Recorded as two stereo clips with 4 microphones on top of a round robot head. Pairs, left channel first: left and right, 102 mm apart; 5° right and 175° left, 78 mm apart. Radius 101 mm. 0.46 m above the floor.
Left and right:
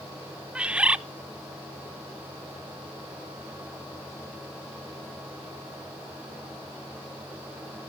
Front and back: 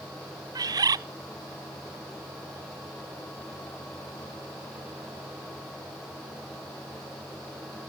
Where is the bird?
170° right, 0.5 m.